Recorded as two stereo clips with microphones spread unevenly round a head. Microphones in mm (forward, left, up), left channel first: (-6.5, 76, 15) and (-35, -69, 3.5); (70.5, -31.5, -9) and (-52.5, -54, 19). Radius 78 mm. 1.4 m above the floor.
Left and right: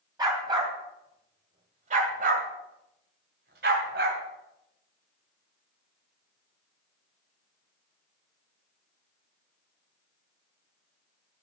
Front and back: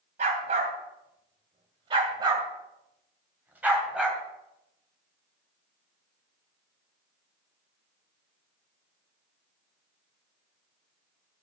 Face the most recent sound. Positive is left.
turn(degrees=-90)